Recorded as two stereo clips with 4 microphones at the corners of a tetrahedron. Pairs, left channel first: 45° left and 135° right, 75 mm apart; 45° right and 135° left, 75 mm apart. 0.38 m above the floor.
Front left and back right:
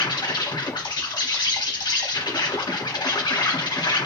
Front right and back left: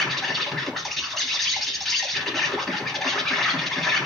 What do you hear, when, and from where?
0.0 s an insect: 45° left, 0.8 m